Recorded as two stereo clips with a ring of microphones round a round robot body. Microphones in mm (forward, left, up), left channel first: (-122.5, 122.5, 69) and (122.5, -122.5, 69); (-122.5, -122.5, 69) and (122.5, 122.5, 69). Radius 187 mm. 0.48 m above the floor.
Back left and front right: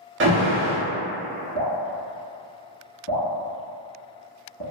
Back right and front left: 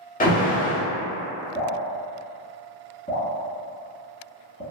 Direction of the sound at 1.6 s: 165° left.